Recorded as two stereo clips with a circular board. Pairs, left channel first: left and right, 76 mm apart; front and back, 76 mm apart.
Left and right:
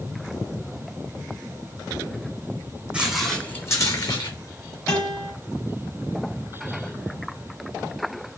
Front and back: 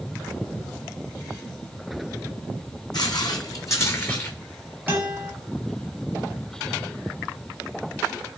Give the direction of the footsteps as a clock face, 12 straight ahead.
1 o'clock.